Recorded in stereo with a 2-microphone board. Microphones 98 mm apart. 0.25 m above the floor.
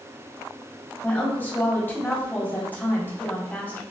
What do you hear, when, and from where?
1.0 s a woman speaking: 20° left (ahead or behind), 1.5 m